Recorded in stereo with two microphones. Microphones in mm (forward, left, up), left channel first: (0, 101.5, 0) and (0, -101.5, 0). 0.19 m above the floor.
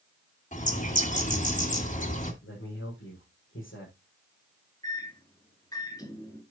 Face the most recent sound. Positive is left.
turn(degrees=20)  # may be behind; listen again after turning